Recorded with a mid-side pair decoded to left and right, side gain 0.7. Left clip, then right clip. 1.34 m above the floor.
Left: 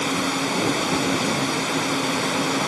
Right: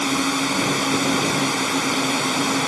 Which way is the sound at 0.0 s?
20° right.